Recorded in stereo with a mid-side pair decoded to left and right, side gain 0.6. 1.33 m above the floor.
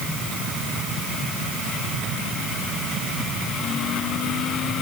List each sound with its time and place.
Only background noise.